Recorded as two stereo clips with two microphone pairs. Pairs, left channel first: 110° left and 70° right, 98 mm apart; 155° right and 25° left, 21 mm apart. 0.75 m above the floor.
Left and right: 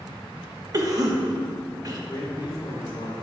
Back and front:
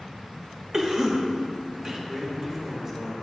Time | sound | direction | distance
0.7 | a cough | 30° right | 1.1 m
2.1 | a man speaking | 70° left | 2.5 m